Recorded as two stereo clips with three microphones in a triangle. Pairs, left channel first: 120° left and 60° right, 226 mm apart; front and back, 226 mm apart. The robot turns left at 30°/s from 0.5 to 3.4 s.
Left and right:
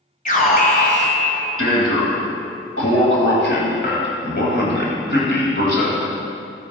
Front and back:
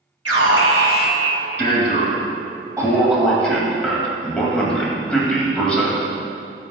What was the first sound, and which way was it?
An alarm, 175° left.